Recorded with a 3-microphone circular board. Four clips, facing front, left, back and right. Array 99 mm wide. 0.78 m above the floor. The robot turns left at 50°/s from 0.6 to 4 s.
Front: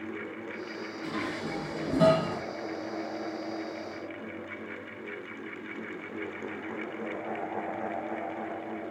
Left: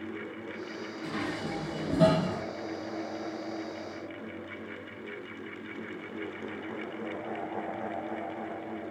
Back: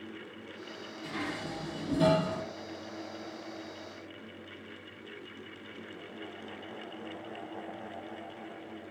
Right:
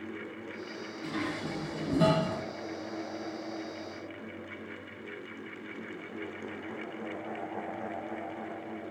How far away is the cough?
No cough in this recording.